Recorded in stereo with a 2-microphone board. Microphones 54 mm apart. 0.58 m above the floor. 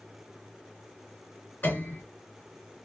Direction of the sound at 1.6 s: 40° left (ahead or behind).